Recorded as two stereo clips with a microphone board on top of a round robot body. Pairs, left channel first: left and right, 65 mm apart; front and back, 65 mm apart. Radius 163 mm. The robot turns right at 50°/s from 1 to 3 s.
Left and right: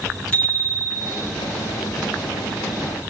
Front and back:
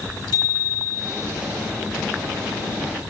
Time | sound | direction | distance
0.3 | a bicycle bell | 20° left | 9.5 m